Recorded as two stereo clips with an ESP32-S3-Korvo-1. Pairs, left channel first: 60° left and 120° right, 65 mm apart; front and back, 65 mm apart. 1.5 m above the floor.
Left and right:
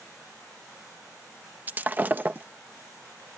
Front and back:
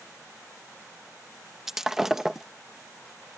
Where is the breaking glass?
105° right.